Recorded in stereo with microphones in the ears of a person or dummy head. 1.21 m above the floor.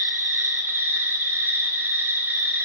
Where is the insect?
10° right (ahead or behind), 0.8 m.